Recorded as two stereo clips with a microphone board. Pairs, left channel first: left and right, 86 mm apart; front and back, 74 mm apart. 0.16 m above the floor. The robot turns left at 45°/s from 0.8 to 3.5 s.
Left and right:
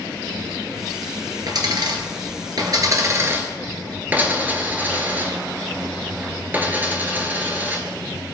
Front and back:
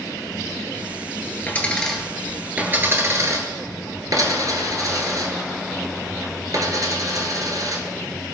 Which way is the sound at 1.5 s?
65° right.